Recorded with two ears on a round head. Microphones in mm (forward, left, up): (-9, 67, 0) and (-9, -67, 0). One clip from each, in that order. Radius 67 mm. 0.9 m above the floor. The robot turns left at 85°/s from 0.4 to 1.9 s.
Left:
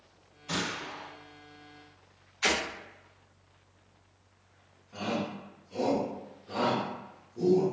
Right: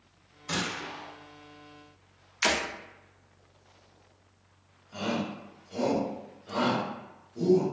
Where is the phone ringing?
I don't hear a phone ringing.